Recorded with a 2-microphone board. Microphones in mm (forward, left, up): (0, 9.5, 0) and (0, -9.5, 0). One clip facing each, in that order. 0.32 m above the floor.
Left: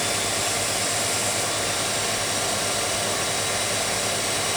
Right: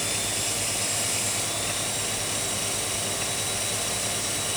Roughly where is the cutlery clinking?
I don't hear cutlery clinking.